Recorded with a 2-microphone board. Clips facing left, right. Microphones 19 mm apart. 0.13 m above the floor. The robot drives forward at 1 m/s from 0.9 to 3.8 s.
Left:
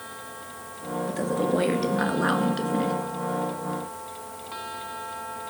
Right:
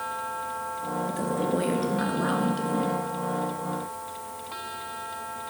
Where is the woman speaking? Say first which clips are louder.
Left 3 dB; 20° left (ahead or behind), 2.5 m; by 2.9 s 30° left (ahead or behind), 1.6 m.